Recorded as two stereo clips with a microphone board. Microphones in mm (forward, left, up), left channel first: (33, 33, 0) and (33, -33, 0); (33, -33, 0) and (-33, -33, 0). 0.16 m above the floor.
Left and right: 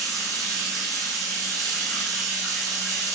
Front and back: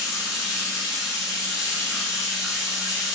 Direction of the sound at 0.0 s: 100° right.